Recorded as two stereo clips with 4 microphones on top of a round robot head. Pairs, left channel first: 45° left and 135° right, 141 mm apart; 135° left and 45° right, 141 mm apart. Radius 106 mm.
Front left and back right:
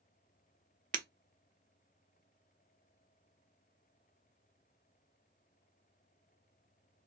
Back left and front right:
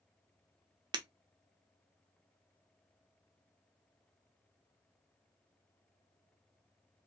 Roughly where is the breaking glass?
Right.